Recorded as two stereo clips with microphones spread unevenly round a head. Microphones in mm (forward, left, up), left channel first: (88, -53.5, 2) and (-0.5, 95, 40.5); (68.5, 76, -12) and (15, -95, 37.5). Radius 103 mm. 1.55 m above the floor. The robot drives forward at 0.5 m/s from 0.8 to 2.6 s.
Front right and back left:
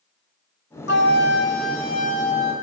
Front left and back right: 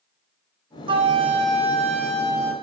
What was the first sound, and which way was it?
A flute, 80° right.